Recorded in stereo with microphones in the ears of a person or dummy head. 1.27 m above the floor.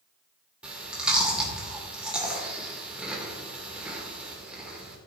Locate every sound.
0.6 s chewing: 5° right (ahead or behind), 2 m